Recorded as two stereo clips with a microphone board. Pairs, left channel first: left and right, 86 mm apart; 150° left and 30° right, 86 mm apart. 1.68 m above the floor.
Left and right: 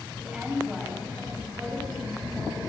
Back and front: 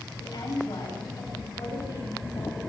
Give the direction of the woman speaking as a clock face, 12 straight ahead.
6 o'clock.